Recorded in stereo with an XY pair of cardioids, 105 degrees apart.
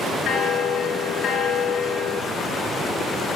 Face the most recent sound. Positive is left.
turn(degrees=70)